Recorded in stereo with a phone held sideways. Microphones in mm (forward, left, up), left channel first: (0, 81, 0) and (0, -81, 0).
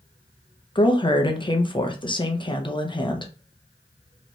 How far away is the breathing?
No breathing in this recording.